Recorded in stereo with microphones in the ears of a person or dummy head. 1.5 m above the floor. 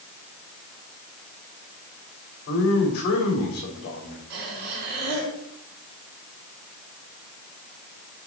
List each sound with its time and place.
2.5 s a man speaking: 55° left (ahead or behind), 3.5 m
4.3 s breathing: 75° right (ahead or behind), 4 m